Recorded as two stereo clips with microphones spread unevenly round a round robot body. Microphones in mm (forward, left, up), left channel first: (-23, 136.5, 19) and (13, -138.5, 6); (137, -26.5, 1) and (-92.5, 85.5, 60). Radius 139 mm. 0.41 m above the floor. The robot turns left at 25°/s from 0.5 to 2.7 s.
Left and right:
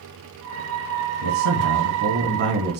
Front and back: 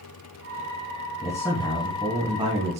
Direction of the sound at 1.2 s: 100° right.